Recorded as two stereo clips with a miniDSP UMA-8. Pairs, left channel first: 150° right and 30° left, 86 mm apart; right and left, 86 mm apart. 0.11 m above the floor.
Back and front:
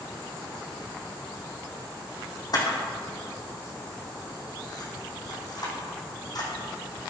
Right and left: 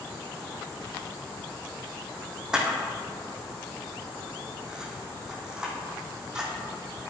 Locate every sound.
2.5 s a camera shutter: 170° left, 2.5 m